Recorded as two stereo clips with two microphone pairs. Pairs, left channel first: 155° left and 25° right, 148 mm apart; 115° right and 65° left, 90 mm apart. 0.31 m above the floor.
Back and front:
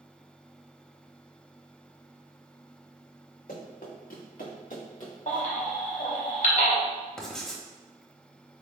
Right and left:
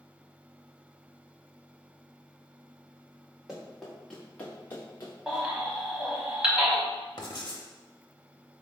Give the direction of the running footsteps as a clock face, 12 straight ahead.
7 o'clock.